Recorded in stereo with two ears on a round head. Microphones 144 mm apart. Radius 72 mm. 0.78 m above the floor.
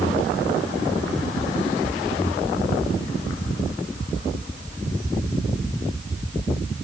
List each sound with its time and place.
Only background noise.